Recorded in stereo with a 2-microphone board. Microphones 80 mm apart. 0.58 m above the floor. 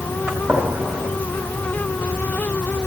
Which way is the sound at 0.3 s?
15° right (ahead or behind).